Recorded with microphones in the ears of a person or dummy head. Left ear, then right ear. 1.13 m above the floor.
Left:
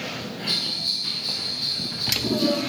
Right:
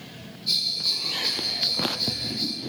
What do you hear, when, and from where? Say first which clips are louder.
0.5 s a bell: right 1 dB; 15° right (ahead or behind), 4.5 m